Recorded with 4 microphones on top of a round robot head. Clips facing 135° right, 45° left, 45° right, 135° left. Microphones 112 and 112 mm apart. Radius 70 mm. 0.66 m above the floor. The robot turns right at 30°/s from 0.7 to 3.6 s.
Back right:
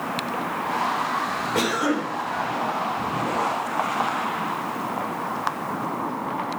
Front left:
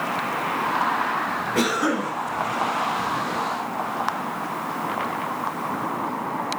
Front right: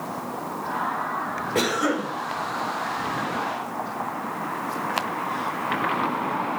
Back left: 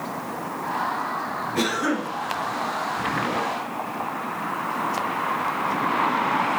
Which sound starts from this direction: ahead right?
A cough, at 1.6 s.